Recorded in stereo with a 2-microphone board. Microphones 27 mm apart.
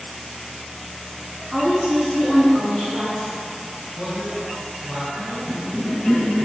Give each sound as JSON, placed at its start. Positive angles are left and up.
{"t": 1.5, "sound": "a woman speaking", "side_deg": -30, "distance_m": 1.8}
{"t": 3.9, "sound": "a man speaking", "side_deg": -35, "distance_m": 2.0}
{"t": 5.5, "sound": "a cough", "side_deg": 25, "distance_m": 1.1}